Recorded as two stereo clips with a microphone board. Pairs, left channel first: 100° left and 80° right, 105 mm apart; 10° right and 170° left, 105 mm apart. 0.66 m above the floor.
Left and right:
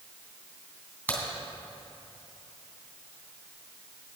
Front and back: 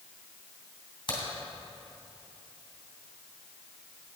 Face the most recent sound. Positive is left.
turn(degrees=25)